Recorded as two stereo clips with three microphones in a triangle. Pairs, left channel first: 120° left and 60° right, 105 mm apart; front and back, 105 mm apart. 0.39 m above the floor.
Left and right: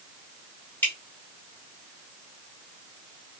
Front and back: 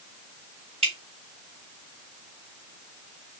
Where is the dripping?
170° right, 3 m.